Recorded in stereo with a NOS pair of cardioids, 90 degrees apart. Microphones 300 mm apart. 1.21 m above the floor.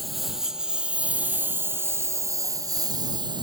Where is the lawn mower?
Straight ahead; by 3.4 s 15° right.